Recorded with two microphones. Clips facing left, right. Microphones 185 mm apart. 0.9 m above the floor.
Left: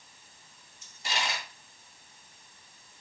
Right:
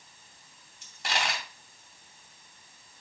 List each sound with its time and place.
0.8 s a dropped coin: 85° right, 2.5 m